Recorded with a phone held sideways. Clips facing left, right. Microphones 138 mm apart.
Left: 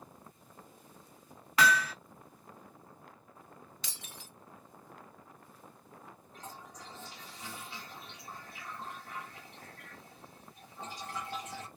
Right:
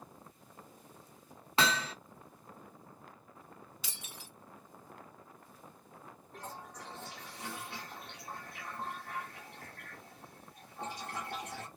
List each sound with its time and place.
1.6 s hammering: 25° right (ahead or behind), 0.5 m
3.8 s breaking glass: 10° right (ahead or behind), 1.2 m
6.3 s a toilet flushing: 65° right (ahead or behind), 1.5 m